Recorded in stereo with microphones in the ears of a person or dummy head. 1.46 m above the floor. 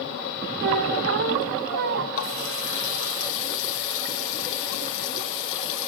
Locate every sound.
0.6 s a squeak: 55° right (ahead or behind), 1.0 m
2.1 s a running tap: 65° left (ahead or behind), 2 m